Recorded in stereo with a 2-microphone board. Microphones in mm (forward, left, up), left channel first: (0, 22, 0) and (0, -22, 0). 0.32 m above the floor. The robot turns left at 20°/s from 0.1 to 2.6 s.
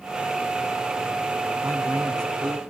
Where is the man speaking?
85° right, 7.5 m; by 2.6 s 70° right (ahead or behind), 7.5 m.